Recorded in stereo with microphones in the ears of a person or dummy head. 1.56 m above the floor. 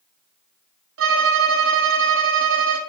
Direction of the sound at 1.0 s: 70° right (ahead or behind).